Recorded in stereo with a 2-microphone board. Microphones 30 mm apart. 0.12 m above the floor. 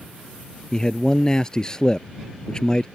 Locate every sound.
0.7 s a man speaking: 20° left (ahead or behind)